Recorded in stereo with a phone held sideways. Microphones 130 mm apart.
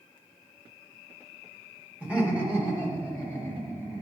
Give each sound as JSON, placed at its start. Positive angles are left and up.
{"t": 2.0, "sound": "laughter", "side_deg": -10, "distance_m": 2.0}